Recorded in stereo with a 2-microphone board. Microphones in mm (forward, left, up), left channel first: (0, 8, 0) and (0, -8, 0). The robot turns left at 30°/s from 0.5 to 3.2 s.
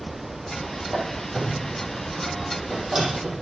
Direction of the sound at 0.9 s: 40° left (ahead or behind).